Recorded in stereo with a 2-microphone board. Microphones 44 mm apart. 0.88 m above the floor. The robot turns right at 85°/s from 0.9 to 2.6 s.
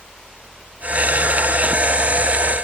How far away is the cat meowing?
I don't hear a cat meowing.